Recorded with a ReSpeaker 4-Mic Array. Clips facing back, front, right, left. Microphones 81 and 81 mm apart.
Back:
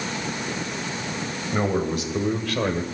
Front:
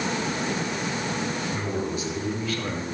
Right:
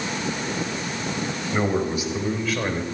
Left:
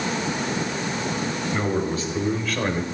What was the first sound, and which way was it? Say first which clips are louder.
A man speaking: back 5 dB, right 3 dB; 160° right.